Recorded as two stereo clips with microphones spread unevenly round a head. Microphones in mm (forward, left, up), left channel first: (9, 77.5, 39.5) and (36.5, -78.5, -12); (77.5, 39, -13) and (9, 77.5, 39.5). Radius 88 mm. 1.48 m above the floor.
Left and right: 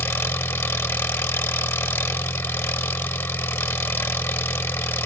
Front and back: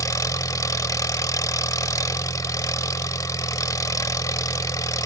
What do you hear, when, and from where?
0.0 s an engine running: 25° left